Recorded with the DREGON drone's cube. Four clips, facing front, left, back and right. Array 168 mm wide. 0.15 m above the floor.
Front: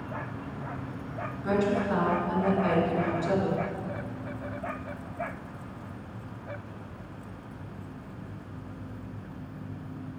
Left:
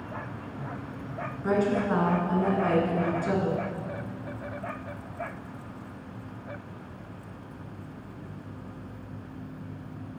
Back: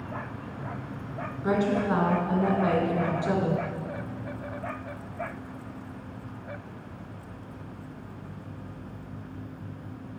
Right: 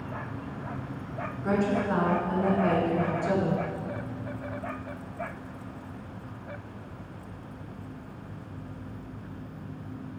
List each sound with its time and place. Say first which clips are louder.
1.4 s a woman speaking: left 1 dB, back 1 dB; 160° left, 1.3 m